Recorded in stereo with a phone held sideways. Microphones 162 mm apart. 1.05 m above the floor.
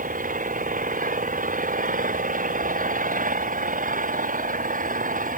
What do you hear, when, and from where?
0.0 s an engine running: 60° right (ahead or behind)